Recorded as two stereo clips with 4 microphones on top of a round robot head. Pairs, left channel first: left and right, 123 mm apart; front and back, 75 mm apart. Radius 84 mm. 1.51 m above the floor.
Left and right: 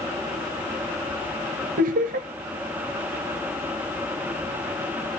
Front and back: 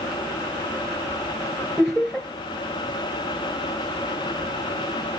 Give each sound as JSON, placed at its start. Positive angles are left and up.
{"t": 1.8, "sound": "laughter", "azimuth_deg": -95, "distance_m": 0.9}